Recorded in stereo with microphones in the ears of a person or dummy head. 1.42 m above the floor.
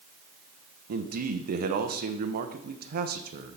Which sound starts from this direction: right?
A man speaking, at 0.9 s.